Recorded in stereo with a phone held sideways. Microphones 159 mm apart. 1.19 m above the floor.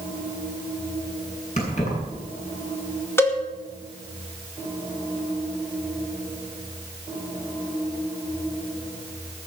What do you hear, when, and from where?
1.6 s keys jangling: 50° left (ahead or behind), 7.5 m
3.2 s a cowbell: 15° left (ahead or behind), 2.5 m